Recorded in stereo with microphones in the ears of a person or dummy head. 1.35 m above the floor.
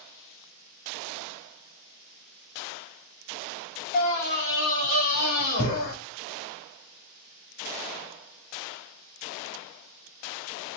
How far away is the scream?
About 1.6 m.